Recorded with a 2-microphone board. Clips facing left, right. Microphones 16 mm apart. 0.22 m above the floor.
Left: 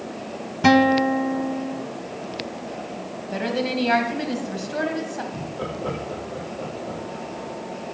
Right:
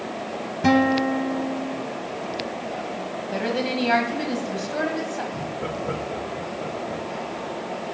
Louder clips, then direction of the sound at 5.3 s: Right 1 dB; 75° left (ahead or behind).